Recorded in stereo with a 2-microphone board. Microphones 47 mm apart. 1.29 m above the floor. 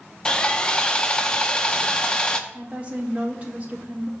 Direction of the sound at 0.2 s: 20° left (ahead or behind).